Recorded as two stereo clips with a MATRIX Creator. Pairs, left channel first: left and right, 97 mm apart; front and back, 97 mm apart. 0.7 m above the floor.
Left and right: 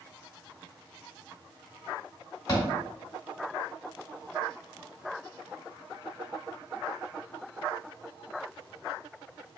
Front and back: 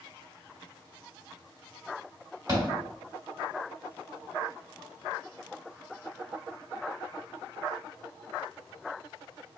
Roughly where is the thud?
Behind left.